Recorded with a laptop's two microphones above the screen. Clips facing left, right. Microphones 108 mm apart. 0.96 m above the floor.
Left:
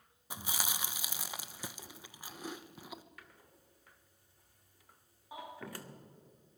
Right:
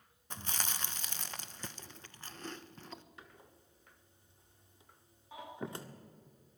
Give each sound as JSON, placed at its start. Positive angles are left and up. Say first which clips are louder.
{"t": 0.3, "sound": "chewing", "louder": "left 1 dB", "side_deg": 10, "distance_m": 0.9}
{"t": 3.2, "sound": "a door slam", "louder": "right 2 dB", "side_deg": -25, "distance_m": 1.8}
{"t": 5.3, "sound": "a baby crying", "louder": "left 2 dB", "side_deg": 15, "distance_m": 7.5}